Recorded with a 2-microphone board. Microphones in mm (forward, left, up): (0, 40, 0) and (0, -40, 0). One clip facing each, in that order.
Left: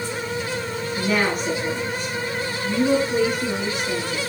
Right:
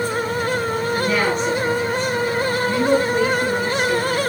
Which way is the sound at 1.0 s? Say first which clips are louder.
Even; 5° left (ahead or behind).